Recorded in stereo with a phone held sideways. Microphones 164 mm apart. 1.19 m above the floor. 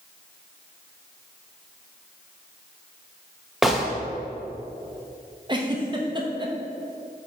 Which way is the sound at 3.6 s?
Centre (ahead or behind).